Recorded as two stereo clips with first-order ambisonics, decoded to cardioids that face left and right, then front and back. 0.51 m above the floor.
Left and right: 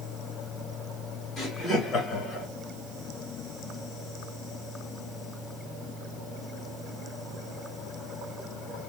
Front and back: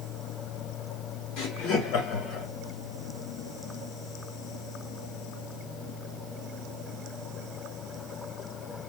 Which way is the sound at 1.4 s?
Straight ahead.